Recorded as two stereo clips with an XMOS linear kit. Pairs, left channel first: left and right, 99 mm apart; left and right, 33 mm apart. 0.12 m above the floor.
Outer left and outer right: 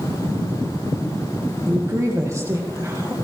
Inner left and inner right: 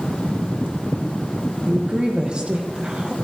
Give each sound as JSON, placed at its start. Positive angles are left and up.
{"t": 1.7, "sound": "a woman speaking", "side_deg": -30, "distance_m": 3.0}